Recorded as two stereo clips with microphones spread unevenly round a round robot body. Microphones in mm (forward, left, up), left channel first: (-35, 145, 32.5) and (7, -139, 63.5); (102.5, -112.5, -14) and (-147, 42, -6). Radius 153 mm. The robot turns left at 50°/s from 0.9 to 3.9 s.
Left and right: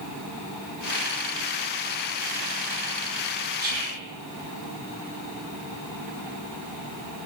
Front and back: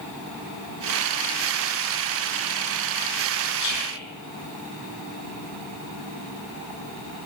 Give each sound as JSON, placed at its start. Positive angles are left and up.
{"t": 3.6, "sound": "whispering", "azimuth_deg": -50, "distance_m": 3.5}